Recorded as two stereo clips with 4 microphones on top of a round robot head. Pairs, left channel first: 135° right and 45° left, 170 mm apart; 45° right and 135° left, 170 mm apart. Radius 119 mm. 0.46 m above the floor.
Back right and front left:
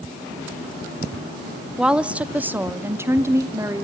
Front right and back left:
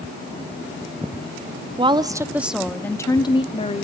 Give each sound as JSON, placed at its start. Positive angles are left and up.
{"t": 1.8, "sound": "a woman speaking", "azimuth_deg": 130, "distance_m": 1.3}